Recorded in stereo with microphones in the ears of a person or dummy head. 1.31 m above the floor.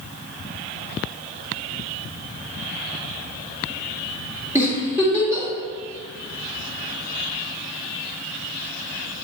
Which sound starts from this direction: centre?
A giggle, at 4.5 s.